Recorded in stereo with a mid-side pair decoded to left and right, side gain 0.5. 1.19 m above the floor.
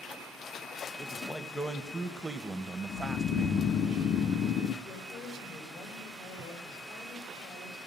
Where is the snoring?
55° left, 0.5 m.